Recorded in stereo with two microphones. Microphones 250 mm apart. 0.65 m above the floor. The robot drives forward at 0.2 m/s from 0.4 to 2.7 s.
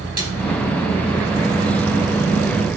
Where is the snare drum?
75° right (ahead or behind), 4 m.